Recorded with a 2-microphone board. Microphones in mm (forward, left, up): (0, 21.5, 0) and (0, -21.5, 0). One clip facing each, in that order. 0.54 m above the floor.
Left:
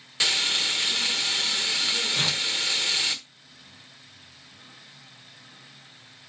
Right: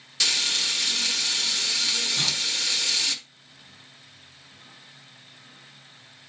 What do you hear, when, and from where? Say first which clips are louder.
0.2 s frying: left 1 dB; 20° left (ahead or behind), 1.4 m
2.1 s tearing paper: left 1 dB; 40° left (ahead or behind), 2 m